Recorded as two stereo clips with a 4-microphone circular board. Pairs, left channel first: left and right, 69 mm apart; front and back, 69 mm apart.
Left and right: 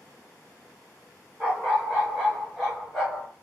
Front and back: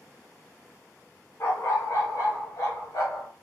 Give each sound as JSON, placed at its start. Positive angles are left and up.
{"t": 1.4, "sound": "a dog barking", "azimuth_deg": -25, "distance_m": 1.3}